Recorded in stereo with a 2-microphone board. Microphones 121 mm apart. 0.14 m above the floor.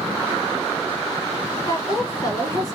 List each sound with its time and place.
1.7 s a woman speaking: 30° left (ahead or behind), 1.9 m